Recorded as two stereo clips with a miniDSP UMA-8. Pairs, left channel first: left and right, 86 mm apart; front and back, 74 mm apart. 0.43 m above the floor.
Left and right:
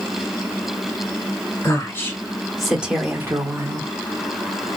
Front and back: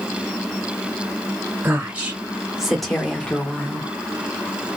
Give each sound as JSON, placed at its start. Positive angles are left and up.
{"t": 1.6, "sound": "a woman speaking", "azimuth_deg": 130, "distance_m": 1.7}